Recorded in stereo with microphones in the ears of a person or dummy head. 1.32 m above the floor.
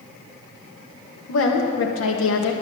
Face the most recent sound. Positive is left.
turn(degrees=75)  # may be behind; listen again after turning